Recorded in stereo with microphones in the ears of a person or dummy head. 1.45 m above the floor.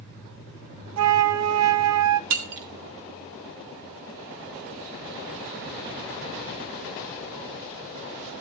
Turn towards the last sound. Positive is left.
turn(degrees=-60)  # may be behind; listen again after turning